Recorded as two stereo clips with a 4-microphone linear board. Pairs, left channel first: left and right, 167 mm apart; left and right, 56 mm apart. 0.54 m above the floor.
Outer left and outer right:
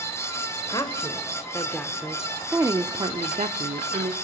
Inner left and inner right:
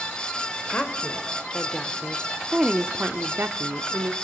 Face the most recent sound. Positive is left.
turn(degrees=-60)  # may be behind; listen again after turning